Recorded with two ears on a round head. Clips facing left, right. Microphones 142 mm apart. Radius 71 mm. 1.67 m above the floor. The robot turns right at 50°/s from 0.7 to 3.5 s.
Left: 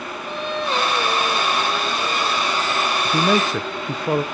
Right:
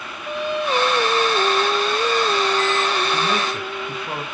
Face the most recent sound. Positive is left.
turn(degrees=60)  # may be behind; listen again after turning